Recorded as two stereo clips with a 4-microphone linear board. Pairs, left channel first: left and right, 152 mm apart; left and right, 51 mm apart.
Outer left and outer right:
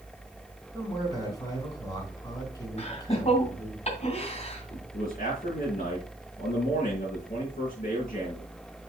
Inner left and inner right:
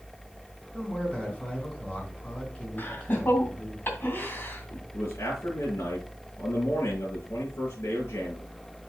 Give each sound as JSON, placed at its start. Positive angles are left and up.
{"t": 0.7, "sound": "a man speaking", "side_deg": 25, "distance_m": 3.0}
{"t": 2.8, "sound": "laughter", "side_deg": 45, "distance_m": 2.5}
{"t": 4.9, "sound": "a man speaking", "side_deg": 60, "distance_m": 5.0}